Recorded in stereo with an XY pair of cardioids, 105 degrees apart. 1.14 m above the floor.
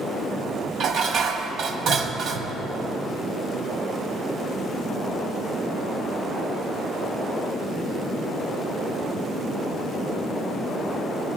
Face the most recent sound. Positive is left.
turn(degrees=-70)